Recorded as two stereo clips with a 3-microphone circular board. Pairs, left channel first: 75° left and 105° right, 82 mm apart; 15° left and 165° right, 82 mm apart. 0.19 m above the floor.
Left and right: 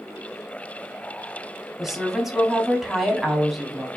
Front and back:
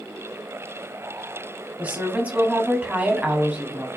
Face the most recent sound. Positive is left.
turn(degrees=175)